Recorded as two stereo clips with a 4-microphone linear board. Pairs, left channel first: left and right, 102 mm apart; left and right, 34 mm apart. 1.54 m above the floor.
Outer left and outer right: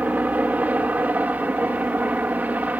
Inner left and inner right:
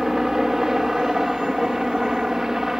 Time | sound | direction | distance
0.0 | a helicopter | 15° right (ahead or behind) | ?